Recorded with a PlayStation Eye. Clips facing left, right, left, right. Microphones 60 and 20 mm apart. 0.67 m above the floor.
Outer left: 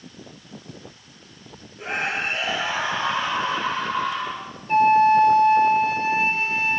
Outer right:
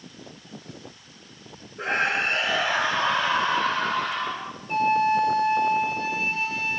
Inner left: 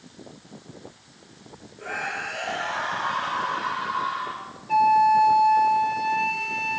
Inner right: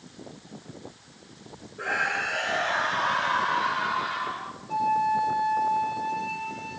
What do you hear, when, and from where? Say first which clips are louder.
1.8 s a scream: outer right 2 dB, inner right 3 dB; 75° right (ahead or behind), 7 m
4.7 s a flute: outer left 6 dB, inner left 7 dB; 45° left (ahead or behind), 2 m